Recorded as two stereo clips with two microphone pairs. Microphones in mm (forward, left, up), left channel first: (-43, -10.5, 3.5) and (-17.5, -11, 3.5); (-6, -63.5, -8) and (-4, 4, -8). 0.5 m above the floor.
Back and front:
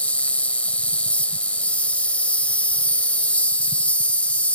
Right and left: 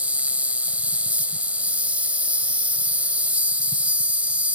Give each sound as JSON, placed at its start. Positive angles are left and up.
{"t": 0.0, "sound": "an insect", "azimuth_deg": 155}